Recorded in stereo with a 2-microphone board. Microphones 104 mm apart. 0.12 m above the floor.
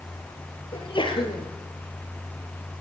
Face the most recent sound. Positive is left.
turn(degrees=55)  # may be behind; listen again after turning